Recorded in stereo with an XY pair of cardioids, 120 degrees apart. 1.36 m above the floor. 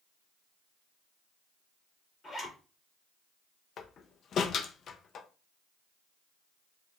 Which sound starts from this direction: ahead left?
A door slam, at 3.8 s.